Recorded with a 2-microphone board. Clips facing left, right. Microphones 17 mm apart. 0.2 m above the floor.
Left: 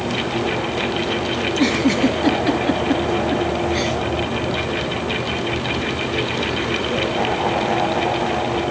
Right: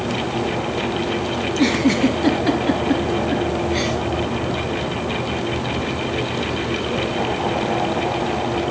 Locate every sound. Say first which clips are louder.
1.4 s a giggle: even; 5° left (ahead or behind), 2.5 m